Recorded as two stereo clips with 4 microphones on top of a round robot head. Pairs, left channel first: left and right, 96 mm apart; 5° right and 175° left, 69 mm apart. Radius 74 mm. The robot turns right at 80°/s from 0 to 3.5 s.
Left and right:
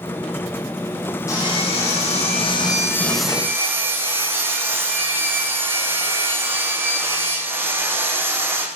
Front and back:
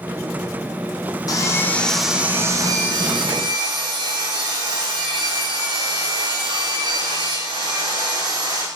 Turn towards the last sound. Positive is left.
turn(degrees=-155)